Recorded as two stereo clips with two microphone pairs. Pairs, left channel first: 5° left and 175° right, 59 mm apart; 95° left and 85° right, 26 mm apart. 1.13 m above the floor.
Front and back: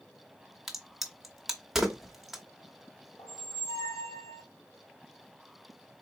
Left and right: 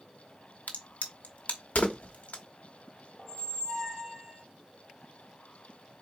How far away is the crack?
About 1.1 m.